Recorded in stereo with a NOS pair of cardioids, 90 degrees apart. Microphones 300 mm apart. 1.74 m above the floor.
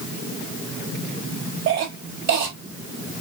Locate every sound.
1.7 s a cough: 60° right, 3.5 m